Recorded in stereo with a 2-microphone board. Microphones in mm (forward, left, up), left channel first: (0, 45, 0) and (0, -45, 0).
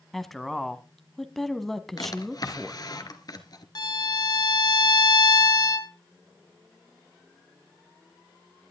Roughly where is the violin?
Left.